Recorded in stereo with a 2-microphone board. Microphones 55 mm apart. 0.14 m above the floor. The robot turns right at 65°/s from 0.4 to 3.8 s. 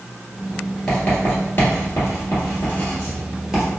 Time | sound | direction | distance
0.9 | writing | 15° left (ahead or behind) | 1.7 m